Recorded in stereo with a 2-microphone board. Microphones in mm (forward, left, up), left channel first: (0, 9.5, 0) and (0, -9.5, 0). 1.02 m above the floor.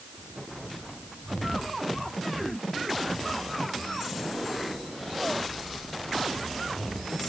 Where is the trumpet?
I don't hear a trumpet.